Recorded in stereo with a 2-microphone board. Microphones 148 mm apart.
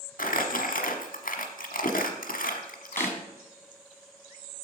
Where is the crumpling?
75° left (ahead or behind), 1.1 m.